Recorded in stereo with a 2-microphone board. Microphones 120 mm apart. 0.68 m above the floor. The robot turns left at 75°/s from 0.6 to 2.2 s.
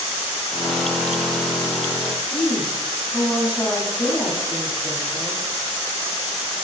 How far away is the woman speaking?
About 3.5 m.